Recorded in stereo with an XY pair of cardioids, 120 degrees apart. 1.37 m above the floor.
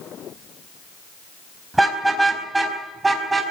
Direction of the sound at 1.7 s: 10° right.